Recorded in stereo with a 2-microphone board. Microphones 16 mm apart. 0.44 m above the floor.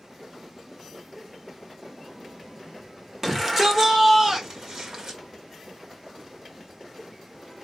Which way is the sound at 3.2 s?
20° right (ahead or behind).